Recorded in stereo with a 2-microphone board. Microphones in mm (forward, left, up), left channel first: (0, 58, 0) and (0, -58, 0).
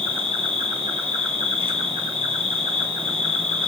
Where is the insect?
50° right (ahead or behind), 0.7 m.